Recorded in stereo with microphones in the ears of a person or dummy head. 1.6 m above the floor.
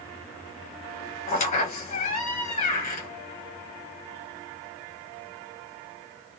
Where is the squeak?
40° left (ahead or behind), 1.0 m.